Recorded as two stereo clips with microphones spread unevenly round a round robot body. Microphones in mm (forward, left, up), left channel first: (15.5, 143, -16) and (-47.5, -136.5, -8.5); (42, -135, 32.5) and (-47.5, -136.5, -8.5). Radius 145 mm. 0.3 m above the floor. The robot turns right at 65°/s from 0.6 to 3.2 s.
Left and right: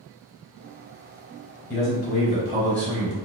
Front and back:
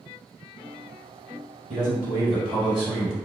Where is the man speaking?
140° left, 1.8 m; by 3.2 s 125° right, 1.8 m.